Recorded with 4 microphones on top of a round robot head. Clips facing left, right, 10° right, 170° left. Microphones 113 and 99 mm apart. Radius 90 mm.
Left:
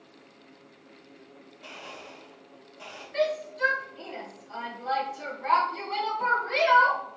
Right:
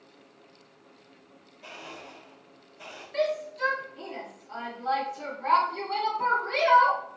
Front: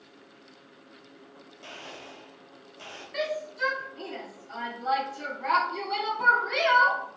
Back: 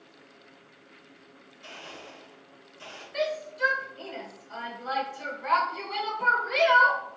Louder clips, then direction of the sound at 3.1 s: Left 1 dB, back 1 dB; 30° right.